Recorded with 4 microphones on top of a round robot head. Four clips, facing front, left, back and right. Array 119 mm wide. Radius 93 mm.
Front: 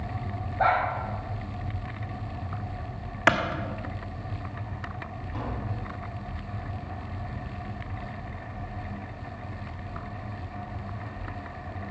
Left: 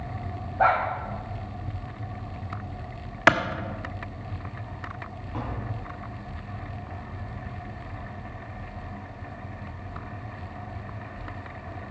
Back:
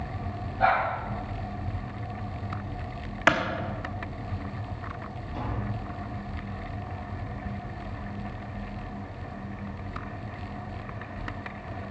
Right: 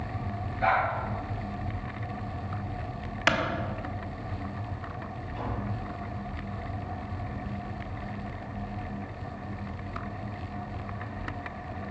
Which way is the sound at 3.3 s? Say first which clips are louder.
Left 7 dB, even; 85° left.